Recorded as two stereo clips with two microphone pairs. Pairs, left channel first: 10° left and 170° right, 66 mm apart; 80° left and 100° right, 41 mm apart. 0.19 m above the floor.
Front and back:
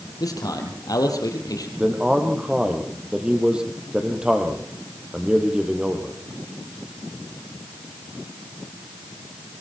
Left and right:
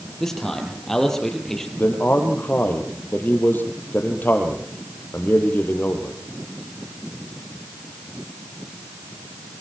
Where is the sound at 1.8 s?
115° left, 4.5 m.